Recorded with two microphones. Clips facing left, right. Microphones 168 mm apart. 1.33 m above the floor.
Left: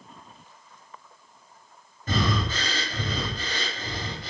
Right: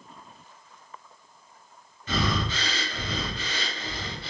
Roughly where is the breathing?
Left.